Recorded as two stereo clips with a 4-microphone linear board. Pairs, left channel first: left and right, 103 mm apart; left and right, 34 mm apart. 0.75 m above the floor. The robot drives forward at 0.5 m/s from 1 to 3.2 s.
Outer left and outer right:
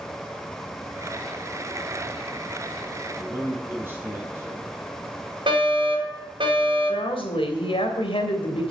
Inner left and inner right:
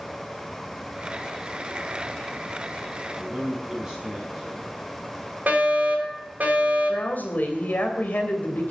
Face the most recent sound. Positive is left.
turn(degrees=65)  # may be behind; listen again after turning